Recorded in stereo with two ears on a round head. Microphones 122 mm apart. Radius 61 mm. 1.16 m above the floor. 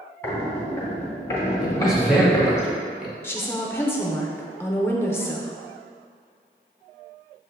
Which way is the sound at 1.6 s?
5° right (ahead or behind).